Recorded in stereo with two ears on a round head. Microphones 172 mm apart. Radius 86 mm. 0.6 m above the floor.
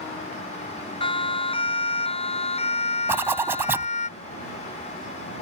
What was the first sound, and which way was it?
A siren, 30° left (ahead or behind).